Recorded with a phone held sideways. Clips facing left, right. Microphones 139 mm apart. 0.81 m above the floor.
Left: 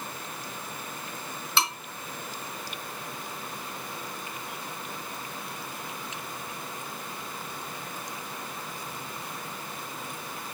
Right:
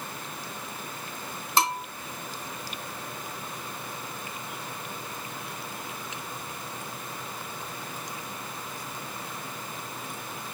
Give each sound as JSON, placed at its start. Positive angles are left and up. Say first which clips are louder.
{"t": 1.6, "sound": "a bell", "louder": "right 5 dB", "side_deg": -45, "distance_m": 1.0}